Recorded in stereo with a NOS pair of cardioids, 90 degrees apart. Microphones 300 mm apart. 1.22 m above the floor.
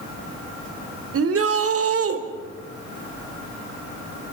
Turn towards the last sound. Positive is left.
turn(degrees=-50)